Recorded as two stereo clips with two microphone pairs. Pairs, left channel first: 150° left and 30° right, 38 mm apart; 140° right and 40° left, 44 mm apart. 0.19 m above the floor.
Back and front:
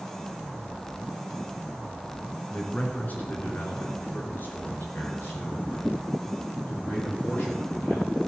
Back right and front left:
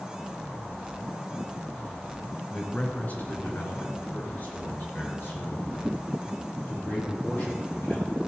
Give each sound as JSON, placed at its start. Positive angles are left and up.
{"t": 2.5, "sound": "a man speaking", "azimuth_deg": 180, "distance_m": 2.0}